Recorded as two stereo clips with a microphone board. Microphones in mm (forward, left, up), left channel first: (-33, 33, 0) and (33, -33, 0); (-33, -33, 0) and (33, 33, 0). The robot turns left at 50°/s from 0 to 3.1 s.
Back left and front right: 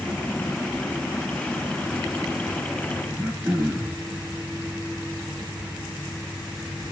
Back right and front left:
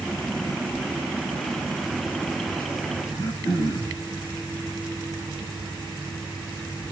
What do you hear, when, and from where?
3.1 s throat clearing: 105° right, 3 m